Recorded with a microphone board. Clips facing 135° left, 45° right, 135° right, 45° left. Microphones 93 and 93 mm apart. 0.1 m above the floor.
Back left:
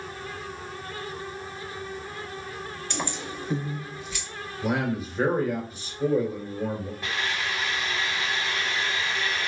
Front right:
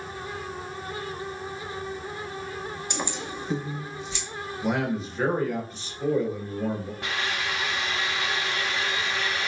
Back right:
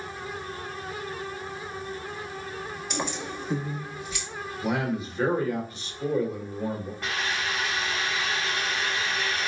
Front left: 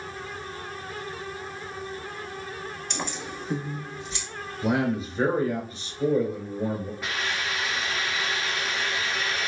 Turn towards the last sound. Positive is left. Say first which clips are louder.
# even, even
turn(degrees=-45)